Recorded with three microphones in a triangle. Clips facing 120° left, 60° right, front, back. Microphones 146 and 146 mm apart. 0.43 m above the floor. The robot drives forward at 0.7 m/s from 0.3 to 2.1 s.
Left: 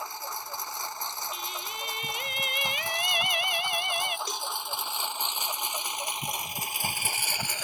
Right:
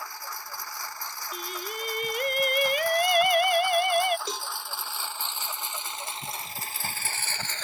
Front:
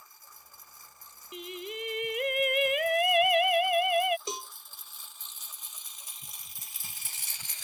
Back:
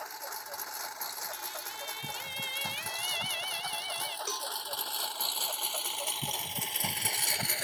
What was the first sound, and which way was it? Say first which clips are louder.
A lawn mower: left 2 dB, back 17 dB; 170° right.